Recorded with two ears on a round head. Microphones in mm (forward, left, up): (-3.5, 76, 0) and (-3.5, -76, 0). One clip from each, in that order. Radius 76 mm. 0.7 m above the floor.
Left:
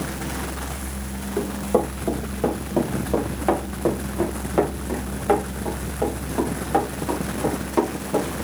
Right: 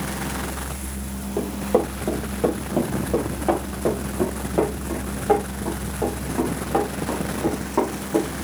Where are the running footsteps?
15° right (ahead or behind), 4 m; by 8.3 s 80° left, 8.5 m.